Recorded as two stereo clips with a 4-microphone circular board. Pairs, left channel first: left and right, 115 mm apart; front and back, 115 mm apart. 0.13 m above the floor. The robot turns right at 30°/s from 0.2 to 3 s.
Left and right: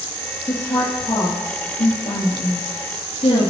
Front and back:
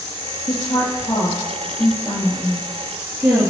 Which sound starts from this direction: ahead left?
A woman speaking, at 0.5 s.